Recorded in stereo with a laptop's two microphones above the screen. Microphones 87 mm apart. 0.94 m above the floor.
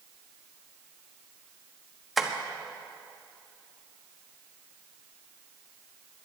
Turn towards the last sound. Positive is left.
turn(degrees=0)  # may be behind; listen again after turning